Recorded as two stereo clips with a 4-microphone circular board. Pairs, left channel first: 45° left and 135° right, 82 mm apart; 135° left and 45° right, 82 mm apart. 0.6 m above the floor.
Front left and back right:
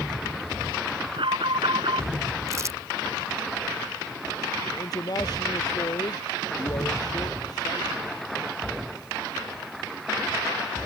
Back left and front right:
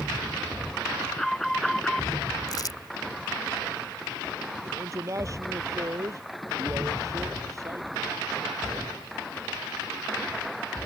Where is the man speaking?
5° left.